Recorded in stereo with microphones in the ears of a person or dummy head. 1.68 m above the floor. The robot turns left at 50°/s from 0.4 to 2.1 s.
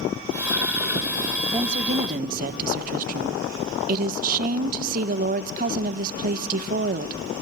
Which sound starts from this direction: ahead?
A woman speaking, at 1.5 s.